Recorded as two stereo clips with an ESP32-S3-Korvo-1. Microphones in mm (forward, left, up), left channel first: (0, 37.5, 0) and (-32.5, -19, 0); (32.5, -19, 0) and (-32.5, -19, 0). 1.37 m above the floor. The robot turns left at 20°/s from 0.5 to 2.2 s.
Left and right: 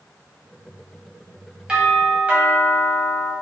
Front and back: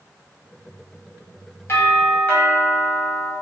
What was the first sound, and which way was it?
A doorbell, 45° right.